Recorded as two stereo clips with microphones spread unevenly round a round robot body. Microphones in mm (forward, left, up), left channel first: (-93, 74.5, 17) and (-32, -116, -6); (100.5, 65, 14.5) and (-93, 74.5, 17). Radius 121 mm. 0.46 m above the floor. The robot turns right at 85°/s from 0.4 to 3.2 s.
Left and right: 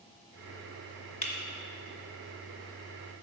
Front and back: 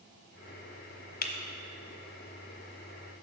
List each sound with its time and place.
1.2 s breaking glass: 40° left, 1.2 m; by 1.3 s 50° left, 1.2 m